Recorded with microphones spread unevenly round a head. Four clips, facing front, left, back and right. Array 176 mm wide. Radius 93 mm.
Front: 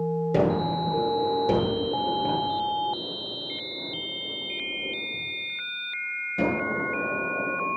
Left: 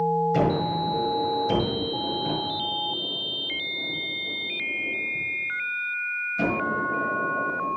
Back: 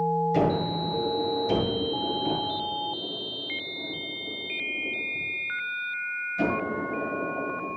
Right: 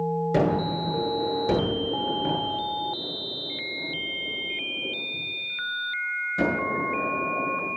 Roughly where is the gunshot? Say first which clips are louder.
Even, front 1 dB; ahead right.